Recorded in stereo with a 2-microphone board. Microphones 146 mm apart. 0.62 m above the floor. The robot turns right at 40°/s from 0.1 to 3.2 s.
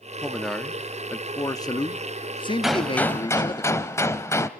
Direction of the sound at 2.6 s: 5° right (ahead or behind).